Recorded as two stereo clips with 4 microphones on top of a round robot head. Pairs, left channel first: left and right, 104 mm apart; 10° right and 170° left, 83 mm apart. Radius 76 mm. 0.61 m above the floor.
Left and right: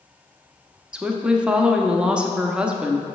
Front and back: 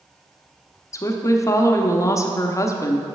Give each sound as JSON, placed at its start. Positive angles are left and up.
{"t": 0.9, "sound": "a woman speaking", "azimuth_deg": -15, "distance_m": 0.8}